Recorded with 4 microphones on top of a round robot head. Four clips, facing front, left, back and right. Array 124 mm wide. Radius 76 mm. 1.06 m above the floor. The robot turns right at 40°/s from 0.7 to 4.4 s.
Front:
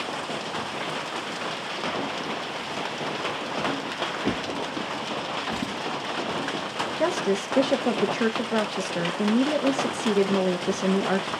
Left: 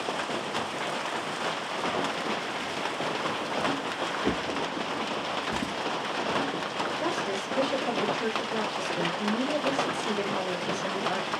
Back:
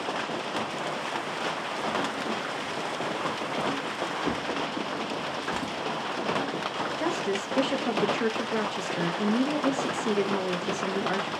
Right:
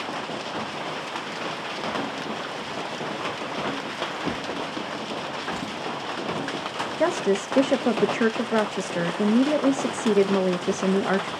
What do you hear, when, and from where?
4.2 s a drawer: 40° left, 0.6 m; by 5.7 s 45° left, 0.6 m
7.0 s a woman speaking: 60° right, 0.6 m